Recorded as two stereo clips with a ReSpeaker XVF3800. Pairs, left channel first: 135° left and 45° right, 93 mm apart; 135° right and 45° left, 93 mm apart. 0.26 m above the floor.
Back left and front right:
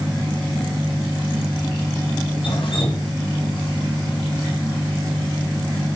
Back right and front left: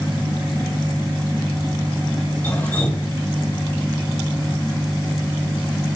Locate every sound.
2.4 s dripping: 155° left, 2.5 m